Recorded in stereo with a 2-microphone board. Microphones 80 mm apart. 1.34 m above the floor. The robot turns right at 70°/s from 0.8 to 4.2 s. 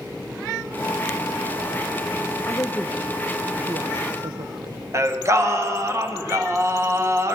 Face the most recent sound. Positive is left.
turn(degrees=-35)  # may be behind; listen again after turning